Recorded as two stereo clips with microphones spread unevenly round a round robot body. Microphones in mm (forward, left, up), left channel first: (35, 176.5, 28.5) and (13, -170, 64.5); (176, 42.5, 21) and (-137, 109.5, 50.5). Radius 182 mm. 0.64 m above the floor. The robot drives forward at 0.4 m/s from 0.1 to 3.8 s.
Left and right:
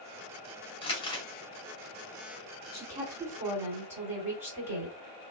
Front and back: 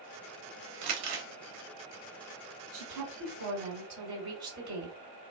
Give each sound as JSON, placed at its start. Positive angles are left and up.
{"t": 0.8, "sound": "crumpling", "azimuth_deg": 160, "distance_m": 0.9}
{"t": 2.7, "sound": "a woman speaking", "azimuth_deg": 180, "distance_m": 1.9}